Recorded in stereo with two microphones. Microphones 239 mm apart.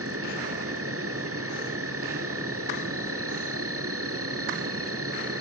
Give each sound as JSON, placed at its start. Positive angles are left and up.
{"t": 0.0, "sound": "an insect", "side_deg": -75, "distance_m": 3.0}